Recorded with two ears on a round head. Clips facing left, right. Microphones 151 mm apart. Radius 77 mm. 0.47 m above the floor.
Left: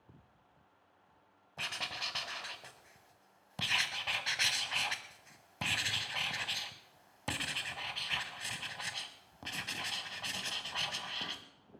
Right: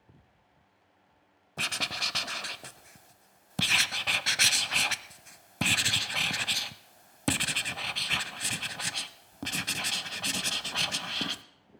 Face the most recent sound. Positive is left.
turn(degrees=-55)  # may be behind; listen again after turning